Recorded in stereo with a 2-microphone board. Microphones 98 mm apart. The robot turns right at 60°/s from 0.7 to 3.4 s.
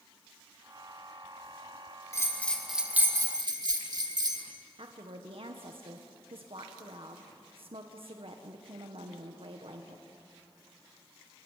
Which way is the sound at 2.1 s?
150° left.